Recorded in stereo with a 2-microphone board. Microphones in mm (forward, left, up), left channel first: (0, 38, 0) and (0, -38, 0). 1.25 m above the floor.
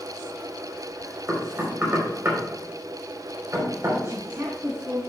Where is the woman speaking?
35° right (ahead or behind), 1.6 m.